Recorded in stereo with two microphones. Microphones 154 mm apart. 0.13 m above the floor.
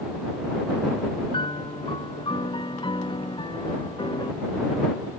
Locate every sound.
1.3 s a piano: 35° left (ahead or behind)